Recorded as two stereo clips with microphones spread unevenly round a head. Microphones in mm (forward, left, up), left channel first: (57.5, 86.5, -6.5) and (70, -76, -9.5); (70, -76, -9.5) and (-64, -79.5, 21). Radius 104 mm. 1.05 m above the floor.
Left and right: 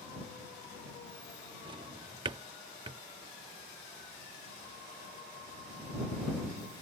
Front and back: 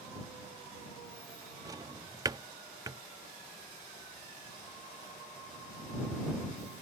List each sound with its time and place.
1.6 s a drawer: 140° right